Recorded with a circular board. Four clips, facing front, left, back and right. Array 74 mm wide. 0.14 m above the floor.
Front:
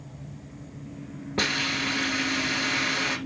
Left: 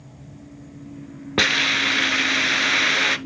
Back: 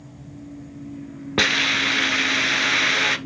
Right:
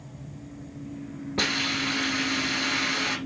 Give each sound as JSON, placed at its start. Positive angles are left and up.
{"t": 1.4, "sound": "a hiss", "azimuth_deg": 125, "distance_m": 0.6}